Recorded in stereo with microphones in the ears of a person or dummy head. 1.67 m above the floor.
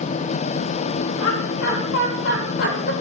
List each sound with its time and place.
1.2 s laughter: 85° left, 9.5 m; by 2.9 s 90° left, 7.5 m